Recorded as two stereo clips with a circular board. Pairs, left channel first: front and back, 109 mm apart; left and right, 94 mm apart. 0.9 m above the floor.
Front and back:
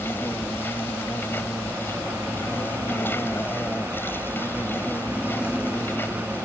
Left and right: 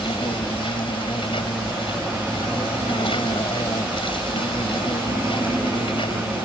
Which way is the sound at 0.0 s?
70° left.